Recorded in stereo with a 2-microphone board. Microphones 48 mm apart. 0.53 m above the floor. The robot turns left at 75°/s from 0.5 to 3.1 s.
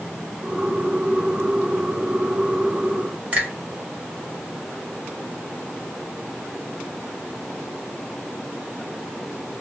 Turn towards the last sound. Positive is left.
turn(degrees=-30)  # may be behind; listen again after turning